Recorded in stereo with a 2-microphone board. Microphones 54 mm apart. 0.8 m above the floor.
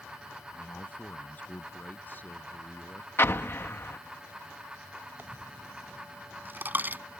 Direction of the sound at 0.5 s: 30° left (ahead or behind).